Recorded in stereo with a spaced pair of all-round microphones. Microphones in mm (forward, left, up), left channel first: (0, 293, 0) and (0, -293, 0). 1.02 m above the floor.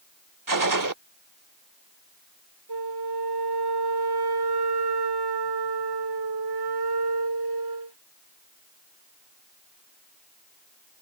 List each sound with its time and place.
0.5 s a gunshot: 35° right (ahead or behind)
2.7 s a flute: 40° right (ahead or behind)